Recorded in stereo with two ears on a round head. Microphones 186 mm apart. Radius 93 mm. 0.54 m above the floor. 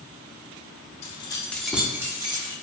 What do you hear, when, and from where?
1.0 s keys jangling: 30° left (ahead or behind), 0.5 m; by 2.5 s 20° right (ahead or behind), 0.9 m